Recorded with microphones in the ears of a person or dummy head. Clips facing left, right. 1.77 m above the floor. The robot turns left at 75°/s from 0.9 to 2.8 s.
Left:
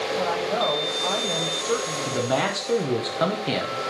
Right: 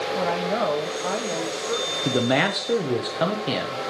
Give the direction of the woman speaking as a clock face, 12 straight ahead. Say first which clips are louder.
Right 1 dB; 5 o'clock.